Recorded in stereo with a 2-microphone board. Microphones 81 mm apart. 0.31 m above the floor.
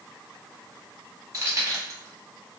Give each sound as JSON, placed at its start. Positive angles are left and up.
{"t": 1.3, "sound": "keys jangling", "side_deg": -45, "distance_m": 1.4}